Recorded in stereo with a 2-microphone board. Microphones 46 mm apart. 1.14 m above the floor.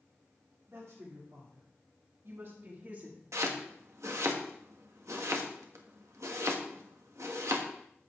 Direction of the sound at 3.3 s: 80° right.